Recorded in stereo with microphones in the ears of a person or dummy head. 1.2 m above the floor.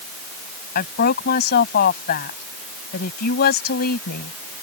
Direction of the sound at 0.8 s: 55° left (ahead or behind).